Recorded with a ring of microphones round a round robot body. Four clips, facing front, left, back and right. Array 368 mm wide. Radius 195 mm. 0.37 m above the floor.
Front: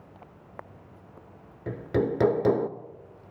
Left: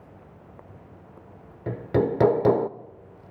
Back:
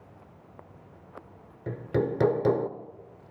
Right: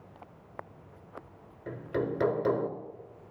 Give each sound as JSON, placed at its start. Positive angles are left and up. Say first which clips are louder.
{"t": 1.7, "sound": "hammering", "louder": "left 8 dB, front 1 dB", "azimuth_deg": 85, "distance_m": 1.0}